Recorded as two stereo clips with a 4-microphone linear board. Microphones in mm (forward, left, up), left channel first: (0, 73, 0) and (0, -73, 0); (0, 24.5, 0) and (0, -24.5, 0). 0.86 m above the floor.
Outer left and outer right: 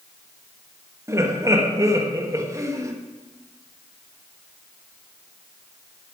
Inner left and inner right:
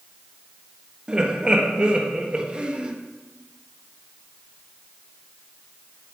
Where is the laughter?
20° right (ahead or behind), 1.3 m.